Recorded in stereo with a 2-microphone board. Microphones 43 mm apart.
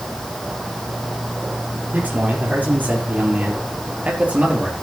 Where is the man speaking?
40° right (ahead or behind), 5.5 m; by 4.7 s 25° right (ahead or behind), 3.5 m.